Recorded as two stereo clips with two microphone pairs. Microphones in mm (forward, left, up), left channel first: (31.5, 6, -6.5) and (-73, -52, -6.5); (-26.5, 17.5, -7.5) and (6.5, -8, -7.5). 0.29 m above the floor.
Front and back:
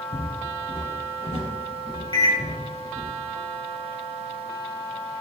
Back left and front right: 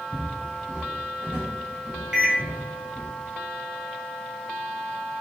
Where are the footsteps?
50° left, 1.0 m; by 3.1 s 55° right, 1.4 m.